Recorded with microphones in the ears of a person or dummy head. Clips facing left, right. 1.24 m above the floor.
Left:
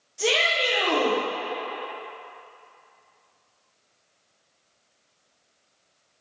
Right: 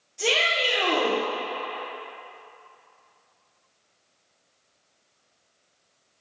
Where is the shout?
Centre (ahead or behind), 0.8 m.